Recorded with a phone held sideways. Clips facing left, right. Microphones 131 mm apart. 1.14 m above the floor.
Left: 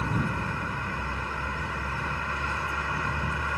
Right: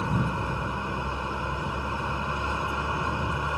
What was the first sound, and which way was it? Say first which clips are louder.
A vehicle: right 1 dB; 20° right (ahead or behind).